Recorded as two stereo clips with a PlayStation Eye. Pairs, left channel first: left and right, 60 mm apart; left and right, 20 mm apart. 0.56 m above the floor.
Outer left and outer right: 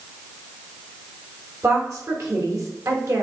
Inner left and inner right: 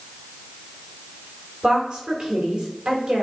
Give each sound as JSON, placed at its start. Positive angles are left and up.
{"t": 1.6, "sound": "a woman speaking", "side_deg": -50, "distance_m": 2.5}